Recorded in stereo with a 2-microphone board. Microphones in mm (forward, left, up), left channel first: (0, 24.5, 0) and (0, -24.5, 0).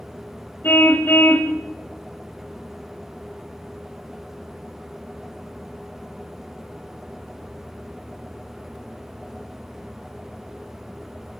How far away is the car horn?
About 2.5 m.